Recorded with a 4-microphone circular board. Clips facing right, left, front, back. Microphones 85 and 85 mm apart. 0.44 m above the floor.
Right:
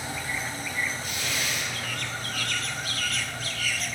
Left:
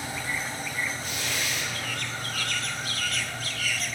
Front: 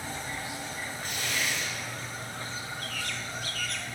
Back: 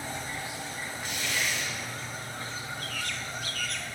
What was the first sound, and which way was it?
Tearing paper, 40° left.